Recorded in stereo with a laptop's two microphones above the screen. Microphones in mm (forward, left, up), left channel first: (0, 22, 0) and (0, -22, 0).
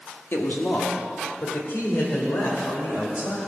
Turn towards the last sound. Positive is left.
turn(degrees=60)  # may be behind; listen again after turning